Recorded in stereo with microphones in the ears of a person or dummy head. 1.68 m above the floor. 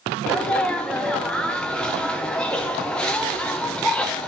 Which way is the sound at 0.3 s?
5° left (ahead or behind).